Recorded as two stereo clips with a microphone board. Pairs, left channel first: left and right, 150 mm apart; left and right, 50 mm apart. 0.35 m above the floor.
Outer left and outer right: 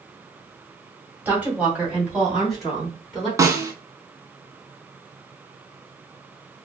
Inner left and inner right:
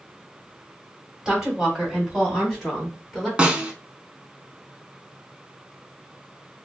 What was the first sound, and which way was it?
A woman speaking, 10° right (ahead or behind).